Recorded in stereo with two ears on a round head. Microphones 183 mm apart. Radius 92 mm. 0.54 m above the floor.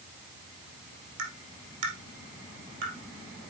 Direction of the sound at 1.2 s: 60° right (ahead or behind).